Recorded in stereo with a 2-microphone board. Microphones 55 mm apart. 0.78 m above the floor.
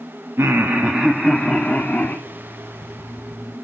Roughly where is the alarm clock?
Right.